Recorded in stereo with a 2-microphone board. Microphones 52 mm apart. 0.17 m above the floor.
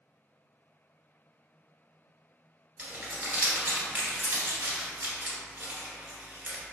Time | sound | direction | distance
2.8 | crumpling | 35° right (ahead or behind) | 1.5 m